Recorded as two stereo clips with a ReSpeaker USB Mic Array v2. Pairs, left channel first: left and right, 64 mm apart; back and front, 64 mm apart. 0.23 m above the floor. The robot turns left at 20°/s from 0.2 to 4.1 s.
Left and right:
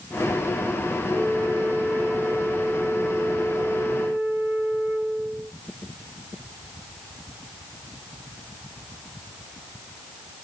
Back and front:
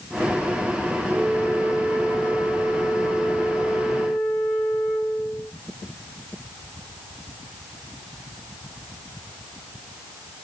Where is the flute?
50° right, 1.9 m; by 5.5 s 105° right, 1.9 m.